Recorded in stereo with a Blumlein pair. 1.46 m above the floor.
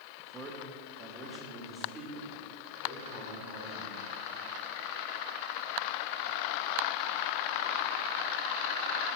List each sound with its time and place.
0.2 s a man speaking: 20° right, 1.3 m; by 4.0 s 10° right, 5 m